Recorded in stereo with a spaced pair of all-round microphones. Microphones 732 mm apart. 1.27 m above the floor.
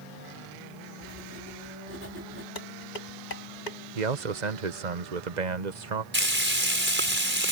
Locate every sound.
1.0 s writing: 15° right (ahead or behind)
2.5 s dishes clattering: 80° left
4.0 s a man speaking: 70° right (ahead or behind)
6.1 s frying: 15° right (ahead or behind)